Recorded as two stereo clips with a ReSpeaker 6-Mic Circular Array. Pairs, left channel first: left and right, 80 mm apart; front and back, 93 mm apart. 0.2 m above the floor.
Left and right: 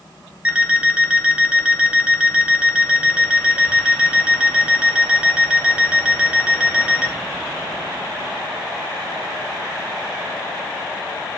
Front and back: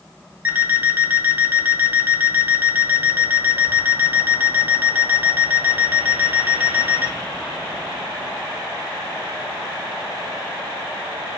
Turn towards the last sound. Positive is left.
turn(degrees=-140)